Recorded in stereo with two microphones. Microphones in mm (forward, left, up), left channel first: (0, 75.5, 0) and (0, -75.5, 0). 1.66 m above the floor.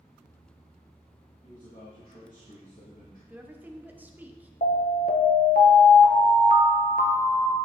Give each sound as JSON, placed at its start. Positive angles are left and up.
{"t": 1.4, "sound": "a man speaking", "side_deg": 70, "distance_m": 3.0}
{"t": 3.3, "sound": "a woman speaking", "side_deg": -10, "distance_m": 1.1}
{"t": 4.6, "sound": "an alarm", "side_deg": 70, "distance_m": 1.3}